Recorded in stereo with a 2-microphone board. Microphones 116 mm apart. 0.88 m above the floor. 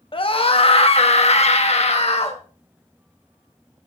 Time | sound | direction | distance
0.1 | a scream | 45° left (ahead or behind) | 1.6 m